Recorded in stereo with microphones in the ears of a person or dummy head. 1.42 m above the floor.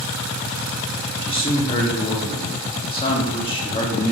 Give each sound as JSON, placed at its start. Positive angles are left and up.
{"t": 1.2, "sound": "a man speaking", "side_deg": 25, "distance_m": 0.6}